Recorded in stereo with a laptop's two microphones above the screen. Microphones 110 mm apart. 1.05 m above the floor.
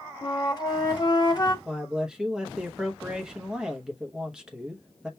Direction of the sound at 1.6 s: 5° right (ahead or behind).